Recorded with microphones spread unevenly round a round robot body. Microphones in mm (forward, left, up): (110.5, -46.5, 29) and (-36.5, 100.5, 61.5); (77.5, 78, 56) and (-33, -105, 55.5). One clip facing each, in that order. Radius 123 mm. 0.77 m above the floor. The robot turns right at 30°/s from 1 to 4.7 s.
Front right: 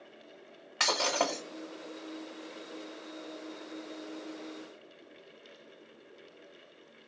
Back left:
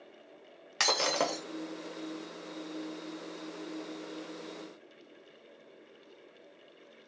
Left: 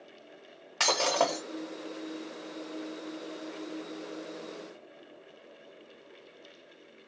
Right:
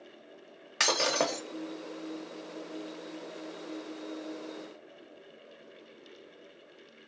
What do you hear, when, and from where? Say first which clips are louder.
0.8 s breaking glass: even, left 1 dB; 170° left, 0.7 m; by 1.4 s straight behind, 0.7 m